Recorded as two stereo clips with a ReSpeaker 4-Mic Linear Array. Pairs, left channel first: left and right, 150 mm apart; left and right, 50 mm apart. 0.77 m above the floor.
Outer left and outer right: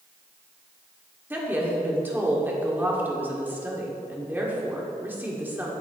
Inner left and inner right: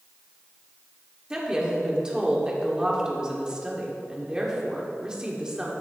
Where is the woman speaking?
15° right (ahead or behind), 1.8 m.